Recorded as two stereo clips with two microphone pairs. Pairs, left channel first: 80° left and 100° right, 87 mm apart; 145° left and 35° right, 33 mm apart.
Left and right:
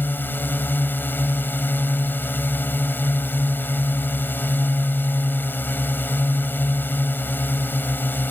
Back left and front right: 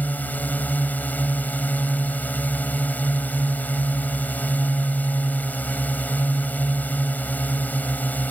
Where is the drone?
140° left.